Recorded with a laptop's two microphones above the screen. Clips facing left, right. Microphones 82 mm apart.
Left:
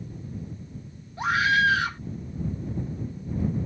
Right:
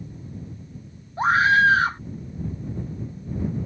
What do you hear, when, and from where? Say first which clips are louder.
1.2 s a scream: right 5 dB; 35° right (ahead or behind)